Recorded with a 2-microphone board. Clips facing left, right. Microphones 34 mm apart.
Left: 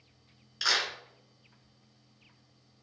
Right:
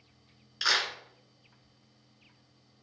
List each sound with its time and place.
0.6 s a clap: 10° right (ahead or behind), 1.5 m